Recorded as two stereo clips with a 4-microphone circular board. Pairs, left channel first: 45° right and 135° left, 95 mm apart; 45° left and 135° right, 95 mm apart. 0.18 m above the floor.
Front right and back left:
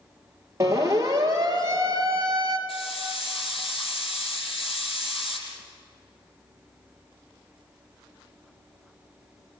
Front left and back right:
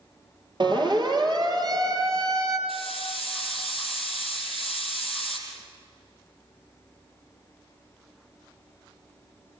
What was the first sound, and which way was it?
A siren, 170° right.